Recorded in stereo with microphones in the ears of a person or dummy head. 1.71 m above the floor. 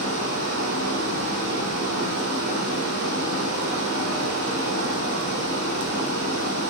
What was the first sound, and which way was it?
Running water, 65° right (ahead or behind).